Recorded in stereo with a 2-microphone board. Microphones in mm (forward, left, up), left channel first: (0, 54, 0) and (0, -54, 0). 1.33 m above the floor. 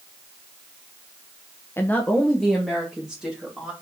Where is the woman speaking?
20° left (ahead or behind), 0.8 m; by 3.7 s 5° right (ahead or behind), 3 m.